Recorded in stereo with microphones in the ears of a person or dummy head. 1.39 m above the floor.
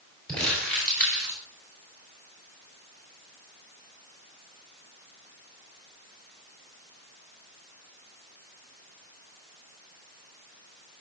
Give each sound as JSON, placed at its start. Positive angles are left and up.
{"t": 0.3, "sound": "crumpling", "side_deg": 10, "distance_m": 4.0}